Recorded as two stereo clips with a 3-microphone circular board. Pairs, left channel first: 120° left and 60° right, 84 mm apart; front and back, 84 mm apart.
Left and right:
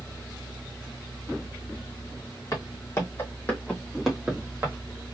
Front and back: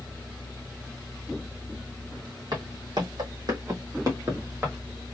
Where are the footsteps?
160° left, 2.5 m; by 4.8 s 120° right, 2 m.